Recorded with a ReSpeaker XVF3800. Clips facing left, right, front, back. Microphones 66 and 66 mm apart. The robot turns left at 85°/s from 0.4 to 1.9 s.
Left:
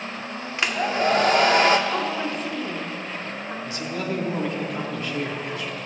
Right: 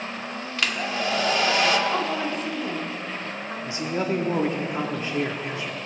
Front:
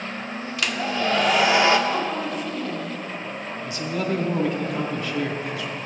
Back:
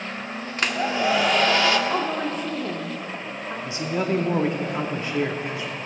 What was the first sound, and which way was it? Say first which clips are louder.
A hair dryer: left 4 dB, back 2 dB; 150° left.